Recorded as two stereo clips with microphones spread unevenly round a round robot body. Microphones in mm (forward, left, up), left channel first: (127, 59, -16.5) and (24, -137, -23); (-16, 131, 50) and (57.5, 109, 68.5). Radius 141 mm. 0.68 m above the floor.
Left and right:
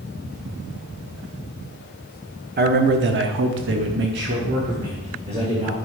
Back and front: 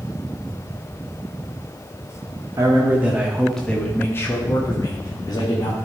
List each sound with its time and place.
2.6 s a man speaking: 80° right, 1.2 m; by 5.7 s 170° left, 1.7 m